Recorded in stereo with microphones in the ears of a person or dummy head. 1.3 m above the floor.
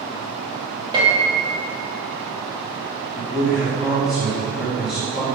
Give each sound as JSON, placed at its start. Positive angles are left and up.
{"t": 0.9, "sound": "a piano", "side_deg": -30, "distance_m": 1.3}
{"t": 3.2, "sound": "a man speaking", "side_deg": -5, "distance_m": 1.6}